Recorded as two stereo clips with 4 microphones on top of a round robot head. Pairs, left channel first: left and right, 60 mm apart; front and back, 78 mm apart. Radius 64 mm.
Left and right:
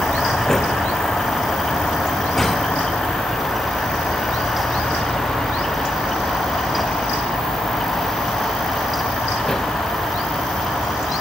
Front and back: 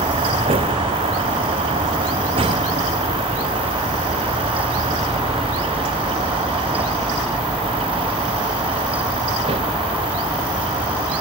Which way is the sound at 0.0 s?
175° left.